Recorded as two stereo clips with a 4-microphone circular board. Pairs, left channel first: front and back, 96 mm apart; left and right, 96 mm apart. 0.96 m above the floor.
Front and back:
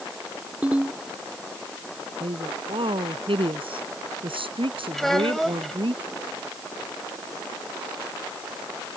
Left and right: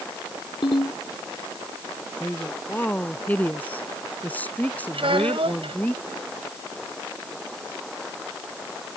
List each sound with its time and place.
0.6 s a ringtone: 105° left
2.2 s a woman speaking: 165° left
4.9 s a child speaking: 85° right